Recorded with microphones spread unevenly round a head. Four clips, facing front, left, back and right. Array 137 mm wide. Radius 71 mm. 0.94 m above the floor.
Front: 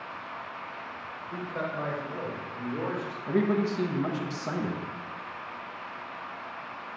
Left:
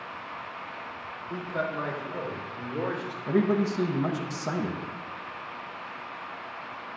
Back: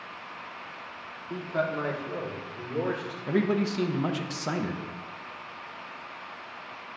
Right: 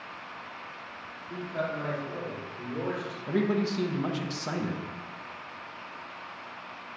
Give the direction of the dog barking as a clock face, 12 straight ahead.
I don't hear a dog barking.